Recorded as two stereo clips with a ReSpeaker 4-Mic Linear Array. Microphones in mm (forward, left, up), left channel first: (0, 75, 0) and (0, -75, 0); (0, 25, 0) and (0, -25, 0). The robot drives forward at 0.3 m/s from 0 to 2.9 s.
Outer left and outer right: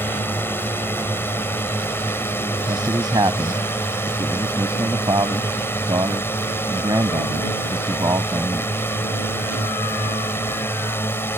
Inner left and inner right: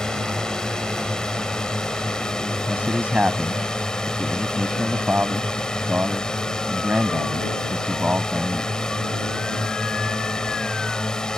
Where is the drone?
15° left (ahead or behind).